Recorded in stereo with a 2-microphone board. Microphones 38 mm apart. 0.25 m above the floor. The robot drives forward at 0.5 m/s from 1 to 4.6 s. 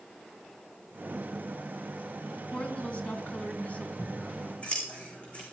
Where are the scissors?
35° left (ahead or behind), 3.5 m.